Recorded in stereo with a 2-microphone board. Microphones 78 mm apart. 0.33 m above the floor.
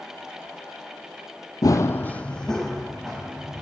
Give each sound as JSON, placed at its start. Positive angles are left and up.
{"t": 1.6, "sound": "running footsteps", "side_deg": 55, "distance_m": 0.6}